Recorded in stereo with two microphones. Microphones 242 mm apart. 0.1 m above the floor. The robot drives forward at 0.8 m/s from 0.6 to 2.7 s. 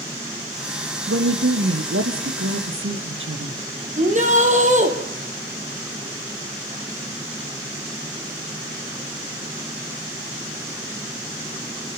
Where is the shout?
30° right (ahead or behind), 3 m.